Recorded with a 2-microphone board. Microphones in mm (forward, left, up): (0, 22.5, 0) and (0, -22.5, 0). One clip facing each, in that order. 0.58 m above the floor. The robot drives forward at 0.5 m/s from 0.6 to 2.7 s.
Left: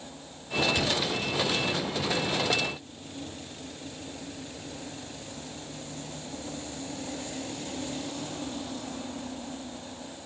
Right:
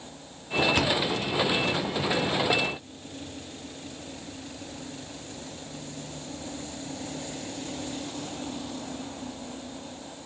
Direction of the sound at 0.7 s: 50° right (ahead or behind).